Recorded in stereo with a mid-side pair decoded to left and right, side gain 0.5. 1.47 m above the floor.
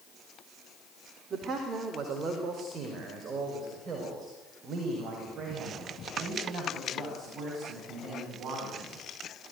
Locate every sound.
1.3 s a man speaking: 45° right, 4 m